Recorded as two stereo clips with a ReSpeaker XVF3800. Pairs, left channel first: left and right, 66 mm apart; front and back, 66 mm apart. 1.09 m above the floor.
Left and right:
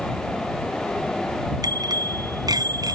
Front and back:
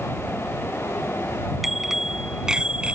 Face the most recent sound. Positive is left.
turn(degrees=-105)